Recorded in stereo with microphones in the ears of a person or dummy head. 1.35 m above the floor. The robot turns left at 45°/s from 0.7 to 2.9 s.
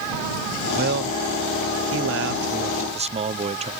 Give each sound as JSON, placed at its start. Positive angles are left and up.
{"t": 0.8, "sound": "a man speaking", "azimuth_deg": -50}